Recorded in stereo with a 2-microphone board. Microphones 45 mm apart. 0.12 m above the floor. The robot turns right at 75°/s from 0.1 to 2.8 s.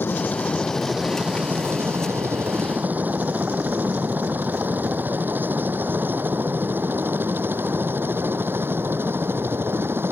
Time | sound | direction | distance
0.0 | a helicopter | 55° left (ahead or behind) | ?